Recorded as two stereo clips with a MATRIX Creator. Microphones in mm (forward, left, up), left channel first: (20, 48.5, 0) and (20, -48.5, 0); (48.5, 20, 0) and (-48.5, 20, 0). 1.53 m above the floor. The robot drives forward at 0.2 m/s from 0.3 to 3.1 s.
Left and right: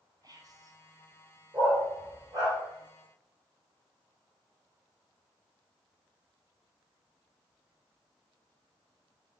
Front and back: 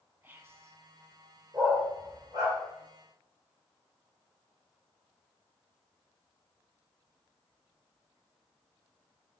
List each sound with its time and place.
0.2 s whispering: 120° right, 0.5 m; by 0.8 s 130° right, 0.6 m
1.5 s a dog barking: 135° right, 2 m; by 2.6 s 140° right, 2.5 m